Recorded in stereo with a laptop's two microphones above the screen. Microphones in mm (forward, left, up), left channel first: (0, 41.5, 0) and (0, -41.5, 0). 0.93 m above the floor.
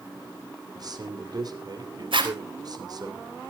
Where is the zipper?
80° right, 4 m.